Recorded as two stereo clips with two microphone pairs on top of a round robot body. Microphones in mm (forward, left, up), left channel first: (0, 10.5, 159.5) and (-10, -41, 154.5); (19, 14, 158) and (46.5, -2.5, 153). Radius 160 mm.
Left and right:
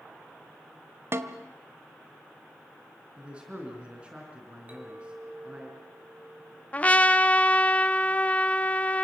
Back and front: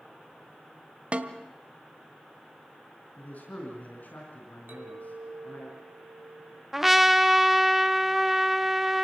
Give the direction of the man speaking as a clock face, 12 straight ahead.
6 o'clock.